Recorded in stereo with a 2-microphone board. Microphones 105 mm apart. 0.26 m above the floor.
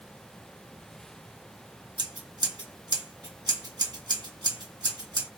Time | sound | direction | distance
2.0 | scissors | 40° right (ahead or behind) | 2.5 m